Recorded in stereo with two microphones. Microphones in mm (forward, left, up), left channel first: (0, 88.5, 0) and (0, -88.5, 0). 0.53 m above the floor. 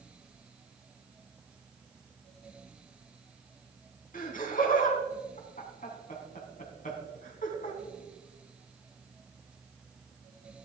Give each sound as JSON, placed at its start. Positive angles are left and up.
{"t": 4.1, "sound": "laughter", "side_deg": 50, "distance_m": 4.0}